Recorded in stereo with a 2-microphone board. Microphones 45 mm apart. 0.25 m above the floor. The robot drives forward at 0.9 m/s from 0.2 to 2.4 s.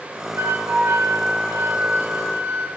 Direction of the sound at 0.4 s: 60° right (ahead or behind).